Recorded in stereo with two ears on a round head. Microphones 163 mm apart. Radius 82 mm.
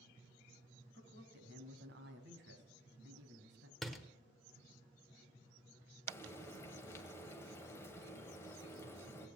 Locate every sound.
0.9 s a man speaking: 60° right (ahead or behind), 3 m
3.8 s a door slam: centre (ahead or behind), 1.1 m
6.1 s frying: 15° left (ahead or behind), 1.8 m